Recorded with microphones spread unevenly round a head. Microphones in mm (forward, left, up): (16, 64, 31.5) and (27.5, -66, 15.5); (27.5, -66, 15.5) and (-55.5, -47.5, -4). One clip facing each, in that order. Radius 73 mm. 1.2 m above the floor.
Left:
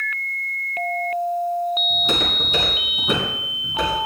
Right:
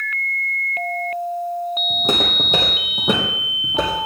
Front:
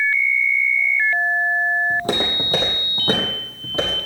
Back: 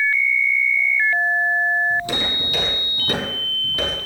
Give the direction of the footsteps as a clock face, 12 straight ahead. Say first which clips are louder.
Right 3 dB, front 2 dB; 1 o'clock.